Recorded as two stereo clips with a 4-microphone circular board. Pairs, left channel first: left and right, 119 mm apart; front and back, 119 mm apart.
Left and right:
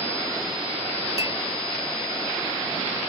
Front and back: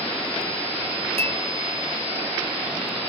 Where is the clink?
155° right, 2 m.